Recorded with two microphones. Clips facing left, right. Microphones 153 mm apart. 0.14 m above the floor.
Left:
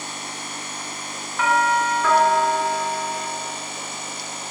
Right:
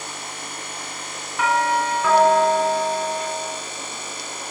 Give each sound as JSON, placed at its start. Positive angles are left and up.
{"t": 1.4, "sound": "a doorbell", "side_deg": -5, "distance_m": 1.7}